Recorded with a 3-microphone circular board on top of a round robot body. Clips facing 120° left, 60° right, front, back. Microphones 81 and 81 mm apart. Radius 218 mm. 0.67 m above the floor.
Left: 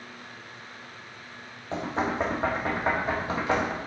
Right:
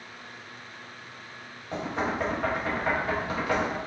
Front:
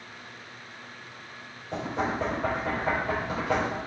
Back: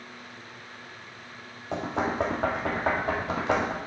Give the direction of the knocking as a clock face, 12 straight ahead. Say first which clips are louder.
Left 1 dB, back 1 dB; 6 o'clock.